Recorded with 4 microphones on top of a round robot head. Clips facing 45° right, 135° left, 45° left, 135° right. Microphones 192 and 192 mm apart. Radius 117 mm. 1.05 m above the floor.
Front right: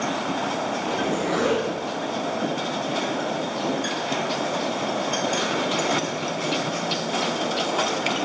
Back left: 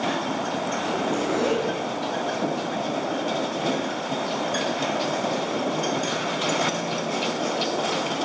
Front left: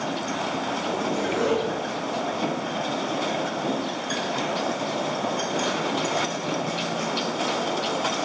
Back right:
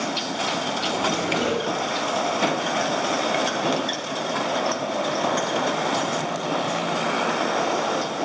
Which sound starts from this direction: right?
A zipper, at 0.8 s.